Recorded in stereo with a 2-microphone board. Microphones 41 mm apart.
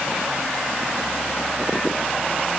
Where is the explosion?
No explosion in this recording.